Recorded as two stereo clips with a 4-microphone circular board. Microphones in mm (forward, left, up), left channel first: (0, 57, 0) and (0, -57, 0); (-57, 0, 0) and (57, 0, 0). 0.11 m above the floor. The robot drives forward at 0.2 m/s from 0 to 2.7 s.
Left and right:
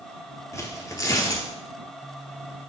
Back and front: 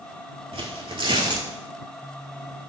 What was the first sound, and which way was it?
Tearing paper, 30° left.